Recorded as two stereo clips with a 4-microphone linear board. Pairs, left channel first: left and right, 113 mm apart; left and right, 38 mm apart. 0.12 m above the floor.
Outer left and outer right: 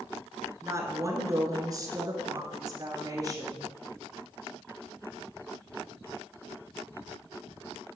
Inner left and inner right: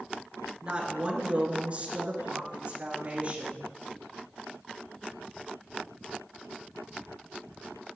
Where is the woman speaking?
25° right (ahead or behind), 1.4 m; by 3.6 s 35° right (ahead or behind), 1.7 m.